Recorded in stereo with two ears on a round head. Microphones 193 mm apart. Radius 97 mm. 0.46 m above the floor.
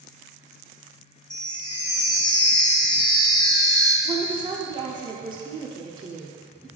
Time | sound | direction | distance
1.3 | a chime | 20° left (ahead or behind) | 1.0 m
4.0 | a woman speaking | 20° right (ahead or behind) | 0.9 m